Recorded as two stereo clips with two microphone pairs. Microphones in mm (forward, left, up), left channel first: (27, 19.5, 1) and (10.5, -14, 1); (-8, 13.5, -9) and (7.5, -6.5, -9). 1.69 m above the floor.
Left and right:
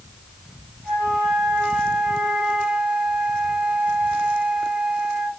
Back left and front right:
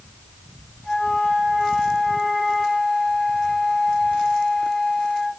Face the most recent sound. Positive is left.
turn(degrees=-175)